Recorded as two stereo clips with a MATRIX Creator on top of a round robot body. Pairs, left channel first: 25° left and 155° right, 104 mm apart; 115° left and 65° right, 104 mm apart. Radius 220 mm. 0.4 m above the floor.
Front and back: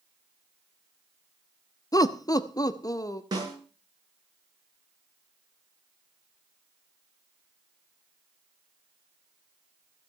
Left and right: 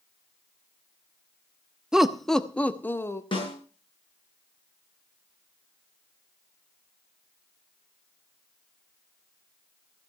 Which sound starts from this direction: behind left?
A snare drum, at 3.3 s.